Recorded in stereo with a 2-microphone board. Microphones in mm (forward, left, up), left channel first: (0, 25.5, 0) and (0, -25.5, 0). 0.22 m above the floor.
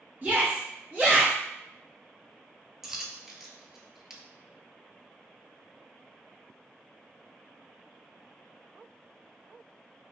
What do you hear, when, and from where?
0.2 s a shout: 40° right (ahead or behind), 1.7 m
2.8 s a dropped coin: 5° right (ahead or behind), 0.5 m